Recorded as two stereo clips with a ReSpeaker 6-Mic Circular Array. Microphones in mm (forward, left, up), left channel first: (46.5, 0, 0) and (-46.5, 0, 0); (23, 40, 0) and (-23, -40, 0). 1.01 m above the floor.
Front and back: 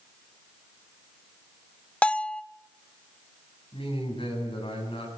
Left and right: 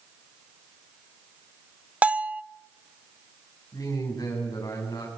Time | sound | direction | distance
2.0 | a bell | 65° right | 0.5 m
3.7 | a man speaking | 10° left | 7.5 m